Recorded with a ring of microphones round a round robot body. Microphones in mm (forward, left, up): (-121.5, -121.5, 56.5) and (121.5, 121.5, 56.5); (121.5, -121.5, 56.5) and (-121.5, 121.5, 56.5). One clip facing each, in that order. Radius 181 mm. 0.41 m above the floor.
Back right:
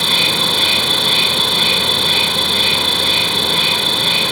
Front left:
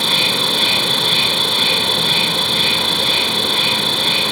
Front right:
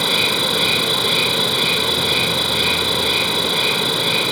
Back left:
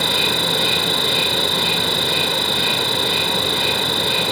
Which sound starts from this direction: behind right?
An insect, at 0.0 s.